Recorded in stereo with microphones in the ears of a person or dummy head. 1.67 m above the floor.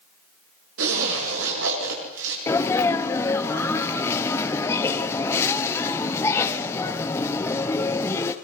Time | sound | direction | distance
0.8 | a zipper | 80° right | 9 m
2.5 | a sneeze | 15° left (ahead or behind) | 1.0 m